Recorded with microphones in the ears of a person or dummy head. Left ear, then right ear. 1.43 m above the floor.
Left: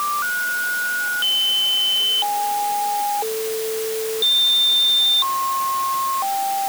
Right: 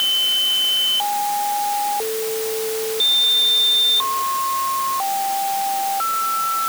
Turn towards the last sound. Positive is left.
No sound to turn to.